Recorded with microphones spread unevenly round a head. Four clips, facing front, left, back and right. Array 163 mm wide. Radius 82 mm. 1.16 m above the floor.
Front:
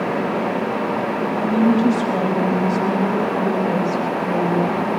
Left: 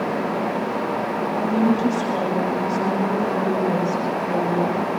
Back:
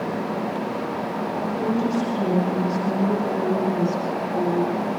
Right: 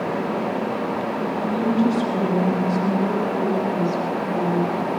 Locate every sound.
1.5 s a woman speaking: 10° left, 8.5 m; by 4.9 s 20° left, 7 m